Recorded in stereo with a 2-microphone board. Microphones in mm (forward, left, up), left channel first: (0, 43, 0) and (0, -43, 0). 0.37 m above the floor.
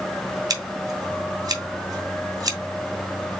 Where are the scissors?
50° right (ahead or behind), 1.5 m.